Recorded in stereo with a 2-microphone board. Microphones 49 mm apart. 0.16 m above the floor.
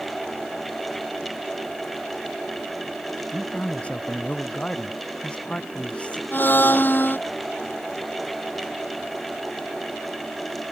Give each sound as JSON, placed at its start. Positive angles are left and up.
{"t": 3.3, "sound": "a man speaking", "side_deg": 25}
{"t": 6.3, "sound": "a blender", "side_deg": 45}